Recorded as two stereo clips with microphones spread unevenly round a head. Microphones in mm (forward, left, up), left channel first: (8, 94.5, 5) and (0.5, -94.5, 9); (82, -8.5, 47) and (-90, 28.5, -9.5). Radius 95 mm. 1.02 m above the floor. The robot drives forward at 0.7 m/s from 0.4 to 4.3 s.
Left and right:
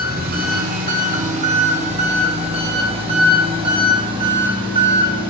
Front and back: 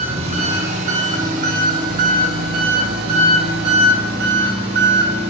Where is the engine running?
140° right, 3 m; by 5.3 s 160° right, 5 m.